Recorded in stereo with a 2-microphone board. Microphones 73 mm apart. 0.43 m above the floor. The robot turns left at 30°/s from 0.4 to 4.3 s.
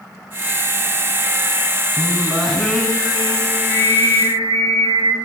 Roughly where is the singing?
Behind.